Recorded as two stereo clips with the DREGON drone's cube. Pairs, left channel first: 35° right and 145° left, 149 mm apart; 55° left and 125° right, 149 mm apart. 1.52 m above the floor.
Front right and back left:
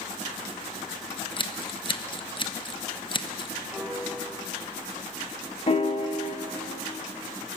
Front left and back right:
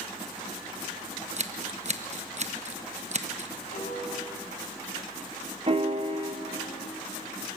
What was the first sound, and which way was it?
Scissors, 90° right.